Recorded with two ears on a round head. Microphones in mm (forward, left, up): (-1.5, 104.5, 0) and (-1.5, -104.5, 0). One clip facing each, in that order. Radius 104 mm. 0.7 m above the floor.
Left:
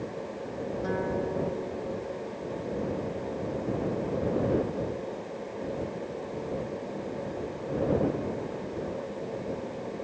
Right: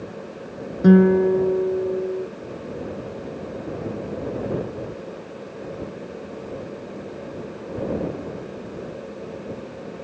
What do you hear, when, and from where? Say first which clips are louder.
0.8 s a guitar: right 18 dB; 75° right (ahead or behind)